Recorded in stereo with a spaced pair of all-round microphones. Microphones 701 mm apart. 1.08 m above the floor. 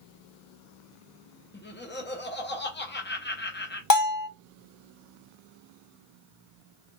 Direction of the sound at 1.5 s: 15° left (ahead or behind).